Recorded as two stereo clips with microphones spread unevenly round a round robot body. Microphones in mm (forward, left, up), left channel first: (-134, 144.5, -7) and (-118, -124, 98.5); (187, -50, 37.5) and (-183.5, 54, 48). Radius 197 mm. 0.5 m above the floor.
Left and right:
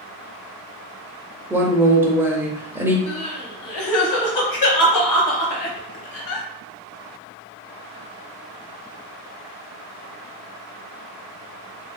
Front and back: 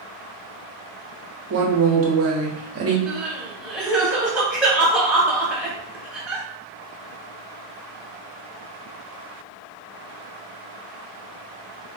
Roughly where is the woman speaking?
Behind.